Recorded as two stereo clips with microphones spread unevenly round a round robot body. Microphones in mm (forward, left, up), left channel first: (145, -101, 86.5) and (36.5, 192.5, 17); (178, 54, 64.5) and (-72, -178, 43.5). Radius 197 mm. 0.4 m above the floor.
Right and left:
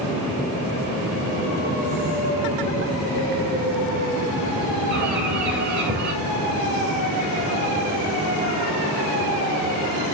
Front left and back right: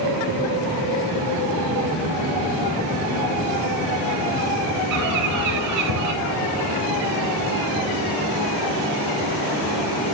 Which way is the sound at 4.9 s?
175° left.